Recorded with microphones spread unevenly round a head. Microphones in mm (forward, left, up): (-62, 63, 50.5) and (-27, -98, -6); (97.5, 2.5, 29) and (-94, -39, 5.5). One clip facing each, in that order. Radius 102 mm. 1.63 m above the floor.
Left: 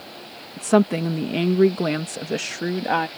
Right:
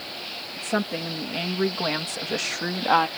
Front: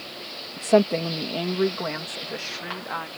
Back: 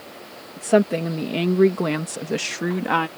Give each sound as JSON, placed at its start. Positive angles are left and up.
{"t": 0.6, "sound": "a woman speaking", "azimuth_deg": 105}